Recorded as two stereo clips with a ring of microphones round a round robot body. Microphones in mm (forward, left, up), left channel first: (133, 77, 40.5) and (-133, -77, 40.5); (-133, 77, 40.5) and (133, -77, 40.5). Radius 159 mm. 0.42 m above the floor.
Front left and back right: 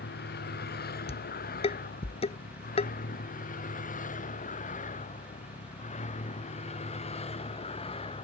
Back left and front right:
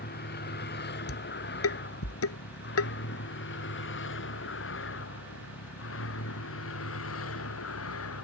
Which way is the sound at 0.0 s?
90° left.